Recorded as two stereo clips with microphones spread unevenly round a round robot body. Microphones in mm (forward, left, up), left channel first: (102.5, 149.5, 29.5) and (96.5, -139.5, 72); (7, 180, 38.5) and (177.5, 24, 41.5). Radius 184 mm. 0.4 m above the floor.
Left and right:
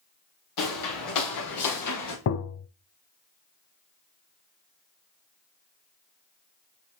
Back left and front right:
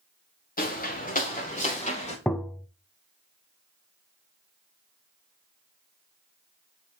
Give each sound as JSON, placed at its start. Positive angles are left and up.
{"t": 0.6, "sound": "footsteps", "azimuth_deg": 85, "distance_m": 2.5}
{"t": 2.3, "sound": "tapping", "azimuth_deg": 50, "distance_m": 0.6}